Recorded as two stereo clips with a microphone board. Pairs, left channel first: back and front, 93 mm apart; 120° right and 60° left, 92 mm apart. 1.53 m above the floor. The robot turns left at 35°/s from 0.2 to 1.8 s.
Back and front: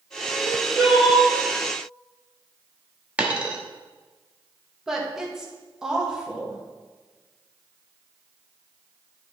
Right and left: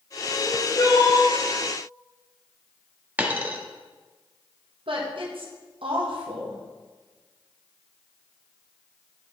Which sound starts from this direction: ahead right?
Crying, at 0.3 s.